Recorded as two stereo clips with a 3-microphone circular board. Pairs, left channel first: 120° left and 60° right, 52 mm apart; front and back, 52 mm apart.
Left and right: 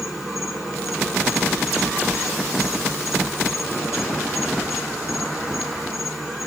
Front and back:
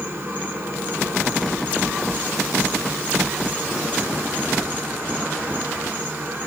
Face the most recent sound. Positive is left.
turn(degrees=-145)